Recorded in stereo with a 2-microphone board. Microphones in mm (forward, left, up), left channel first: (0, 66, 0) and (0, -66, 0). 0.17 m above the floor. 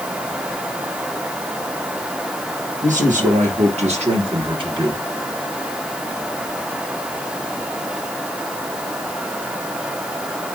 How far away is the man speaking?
About 4 m.